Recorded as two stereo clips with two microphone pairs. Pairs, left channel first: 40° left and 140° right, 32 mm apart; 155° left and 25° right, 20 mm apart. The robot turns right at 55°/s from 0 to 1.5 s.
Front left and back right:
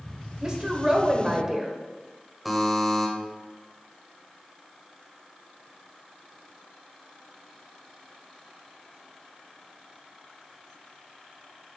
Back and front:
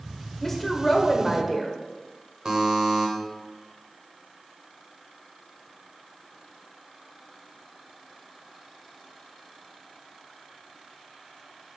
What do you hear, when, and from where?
0.4 s a woman speaking: 155° right, 1.3 m; by 1.8 s 95° right, 1.3 m
2.5 s a buzzer: 55° right, 1.5 m